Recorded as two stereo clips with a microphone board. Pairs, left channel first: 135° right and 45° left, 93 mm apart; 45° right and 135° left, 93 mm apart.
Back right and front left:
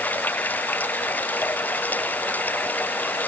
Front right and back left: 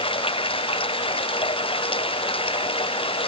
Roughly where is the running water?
Ahead right.